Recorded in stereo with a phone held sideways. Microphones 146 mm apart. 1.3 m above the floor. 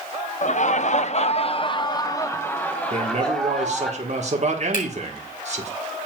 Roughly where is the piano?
I don't hear a piano.